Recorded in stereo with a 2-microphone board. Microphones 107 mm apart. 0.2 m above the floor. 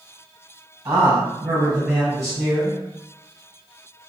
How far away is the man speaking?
About 1.1 m.